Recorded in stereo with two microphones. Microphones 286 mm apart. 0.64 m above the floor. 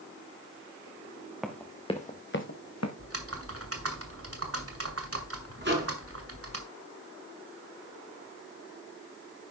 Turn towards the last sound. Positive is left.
turn(degrees=-40)  # may be behind; listen again after turning